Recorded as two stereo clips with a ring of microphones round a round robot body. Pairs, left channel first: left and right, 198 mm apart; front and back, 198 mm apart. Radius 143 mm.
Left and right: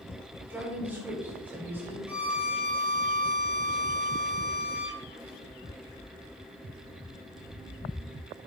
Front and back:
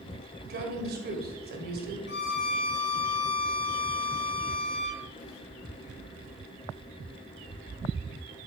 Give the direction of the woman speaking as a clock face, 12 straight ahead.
6 o'clock.